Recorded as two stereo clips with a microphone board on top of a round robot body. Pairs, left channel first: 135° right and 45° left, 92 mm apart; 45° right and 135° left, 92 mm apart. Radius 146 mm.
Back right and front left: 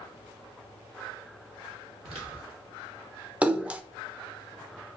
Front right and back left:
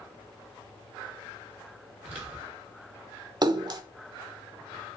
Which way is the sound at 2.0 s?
65° left.